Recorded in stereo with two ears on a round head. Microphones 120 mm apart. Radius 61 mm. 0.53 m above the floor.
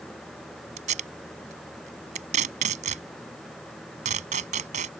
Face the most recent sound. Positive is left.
turn(degrees=-55)  # may be behind; listen again after turning